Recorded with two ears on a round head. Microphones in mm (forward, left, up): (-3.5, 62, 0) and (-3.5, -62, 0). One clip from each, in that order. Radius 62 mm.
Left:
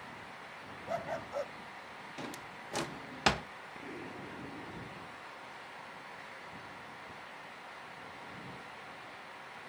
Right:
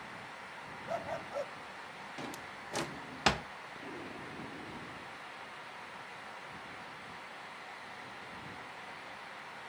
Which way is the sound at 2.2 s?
Centre (ahead or behind).